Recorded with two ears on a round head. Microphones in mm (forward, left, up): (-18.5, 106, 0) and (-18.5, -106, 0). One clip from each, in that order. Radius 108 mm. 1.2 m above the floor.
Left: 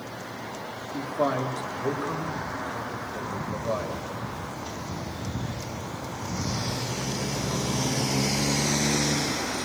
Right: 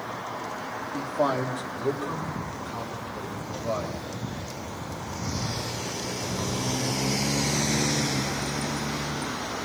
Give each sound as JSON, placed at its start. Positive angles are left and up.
{"t": 0.9, "sound": "a man speaking", "side_deg": -20, "distance_m": 2.5}